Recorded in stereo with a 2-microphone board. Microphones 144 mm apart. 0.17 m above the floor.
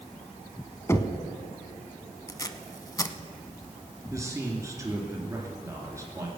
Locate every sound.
0.9 s knocking: 20° left (ahead or behind), 0.9 m
2.3 s tape being pulled: 25° left (ahead or behind), 0.7 m
4.1 s a man speaking: 20° right (ahead or behind), 2.5 m